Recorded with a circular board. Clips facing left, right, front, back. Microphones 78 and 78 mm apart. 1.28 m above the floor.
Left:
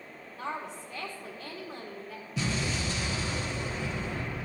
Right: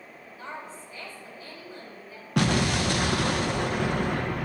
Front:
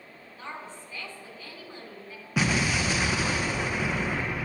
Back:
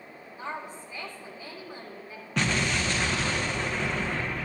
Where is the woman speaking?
105° left, 3 m.